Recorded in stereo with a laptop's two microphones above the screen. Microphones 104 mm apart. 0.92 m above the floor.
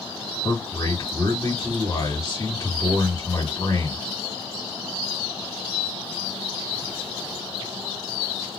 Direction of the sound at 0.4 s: 30° left (ahead or behind).